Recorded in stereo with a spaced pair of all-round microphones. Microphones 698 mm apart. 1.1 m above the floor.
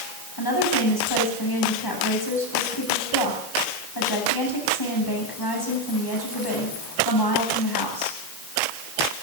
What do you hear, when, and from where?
0.4 s a woman speaking: 35° left (ahead or behind), 8.5 m